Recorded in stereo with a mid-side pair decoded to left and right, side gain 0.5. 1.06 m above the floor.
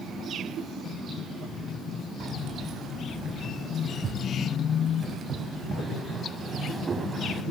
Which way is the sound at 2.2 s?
65° right.